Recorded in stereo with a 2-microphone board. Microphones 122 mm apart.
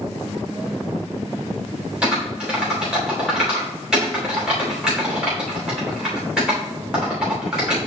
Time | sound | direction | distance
2.0 | typing on a keyboard | 5° right (ahead or behind) | 3 m